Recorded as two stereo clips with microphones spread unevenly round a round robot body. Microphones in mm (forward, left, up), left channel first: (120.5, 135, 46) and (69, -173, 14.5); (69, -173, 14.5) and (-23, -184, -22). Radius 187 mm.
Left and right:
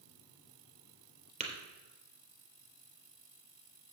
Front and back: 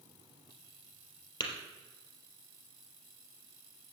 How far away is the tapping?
About 3.5 m.